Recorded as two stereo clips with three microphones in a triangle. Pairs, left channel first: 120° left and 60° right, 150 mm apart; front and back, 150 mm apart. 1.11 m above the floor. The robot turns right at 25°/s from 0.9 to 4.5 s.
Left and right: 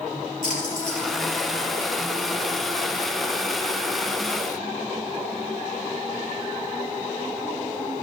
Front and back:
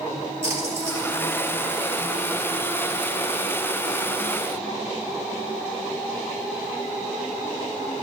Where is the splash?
110° left, 4.5 m; by 1.2 s 115° left, 4.5 m.